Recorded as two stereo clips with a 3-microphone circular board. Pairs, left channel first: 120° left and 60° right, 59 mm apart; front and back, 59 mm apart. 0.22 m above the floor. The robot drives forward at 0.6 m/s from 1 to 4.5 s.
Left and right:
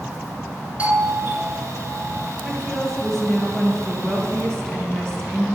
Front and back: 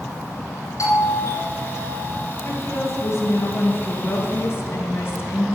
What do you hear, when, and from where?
0.8 s a doorbell: straight ahead, 4 m
2.4 s a woman speaking: 35° left, 4 m; by 5.6 s 45° left, 3 m